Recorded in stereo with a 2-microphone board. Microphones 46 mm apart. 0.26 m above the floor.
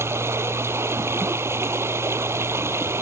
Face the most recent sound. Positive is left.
turn(degrees=-75)  # may be behind; listen again after turning